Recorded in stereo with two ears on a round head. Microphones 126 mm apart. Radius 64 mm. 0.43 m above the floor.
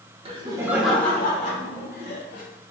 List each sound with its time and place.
0.2 s laughter: 40° right (ahead or behind), 1.2 m; by 2.4 s 60° left (ahead or behind), 2 m